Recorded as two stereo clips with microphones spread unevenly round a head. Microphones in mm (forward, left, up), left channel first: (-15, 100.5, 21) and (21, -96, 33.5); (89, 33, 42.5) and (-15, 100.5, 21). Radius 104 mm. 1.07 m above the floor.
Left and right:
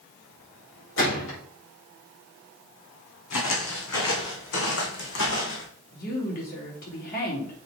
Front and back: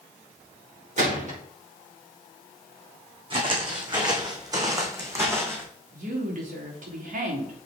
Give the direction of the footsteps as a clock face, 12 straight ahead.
9 o'clock.